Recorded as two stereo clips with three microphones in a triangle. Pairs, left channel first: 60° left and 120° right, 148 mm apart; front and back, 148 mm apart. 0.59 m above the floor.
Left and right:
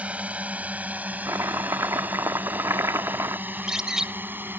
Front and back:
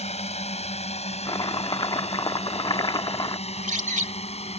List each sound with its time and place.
0.0 s a drone: 40° right; by 4.6 s 45° right
1.2 s chopping: 50° right
3.5 s a bird: 155° left